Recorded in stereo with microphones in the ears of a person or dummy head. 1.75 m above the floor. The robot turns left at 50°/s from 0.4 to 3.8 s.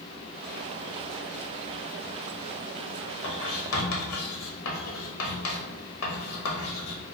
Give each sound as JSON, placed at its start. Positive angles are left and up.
{"t": 3.2, "sound": "writing", "side_deg": 55, "distance_m": 1.0}